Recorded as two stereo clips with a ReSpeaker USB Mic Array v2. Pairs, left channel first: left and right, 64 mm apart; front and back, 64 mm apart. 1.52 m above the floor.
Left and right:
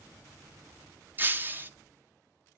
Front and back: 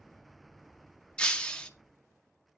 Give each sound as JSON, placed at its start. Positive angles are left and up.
{"t": 1.2, "sound": "breaking glass", "azimuth_deg": -65, "distance_m": 0.8}